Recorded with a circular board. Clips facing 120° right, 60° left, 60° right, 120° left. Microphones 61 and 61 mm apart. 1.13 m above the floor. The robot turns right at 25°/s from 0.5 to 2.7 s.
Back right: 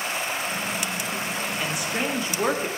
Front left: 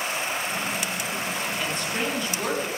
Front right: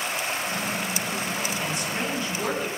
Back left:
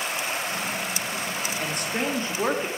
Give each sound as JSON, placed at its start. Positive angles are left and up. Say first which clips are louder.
{"t": 1.6, "sound": "a woman speaking", "louder": "back right 2 dB, back left 1 dB", "azimuth_deg": 155, "distance_m": 2.0}